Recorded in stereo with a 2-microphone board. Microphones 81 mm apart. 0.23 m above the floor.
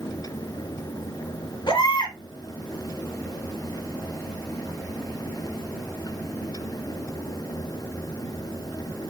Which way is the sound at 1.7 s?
70° left (ahead or behind).